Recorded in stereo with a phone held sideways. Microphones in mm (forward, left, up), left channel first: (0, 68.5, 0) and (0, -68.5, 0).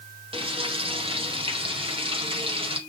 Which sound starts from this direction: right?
Frying, at 0.3 s.